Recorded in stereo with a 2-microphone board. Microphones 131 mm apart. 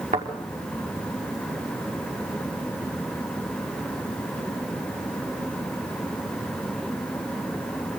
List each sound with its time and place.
0.1 s a thud: 80° right, 6 m